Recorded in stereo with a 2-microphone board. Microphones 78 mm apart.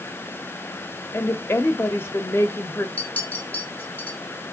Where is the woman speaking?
35° left (ahead or behind), 1.3 m.